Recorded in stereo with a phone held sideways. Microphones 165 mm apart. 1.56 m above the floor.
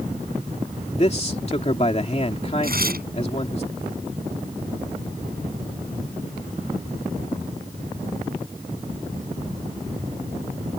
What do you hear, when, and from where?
0.9 s a man speaking: 40° left (ahead or behind)
2.6 s tearing paper: 70° right (ahead or behind)